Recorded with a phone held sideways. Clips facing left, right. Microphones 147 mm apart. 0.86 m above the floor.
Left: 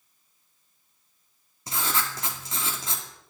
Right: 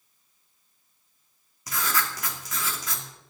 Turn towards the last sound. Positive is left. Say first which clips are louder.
# right 1 dB
turn(degrees=30)  # may be behind; listen again after turning